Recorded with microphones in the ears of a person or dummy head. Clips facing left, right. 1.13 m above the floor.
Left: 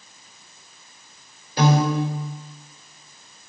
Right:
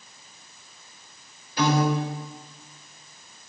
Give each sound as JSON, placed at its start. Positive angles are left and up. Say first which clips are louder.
{"t": 1.6, "sound": "a piano", "louder": "left 3 dB", "side_deg": 35, "distance_m": 3.5}